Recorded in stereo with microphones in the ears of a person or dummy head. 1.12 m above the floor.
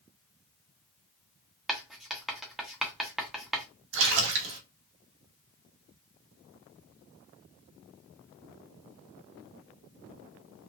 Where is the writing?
Centre (ahead or behind), 1.0 m.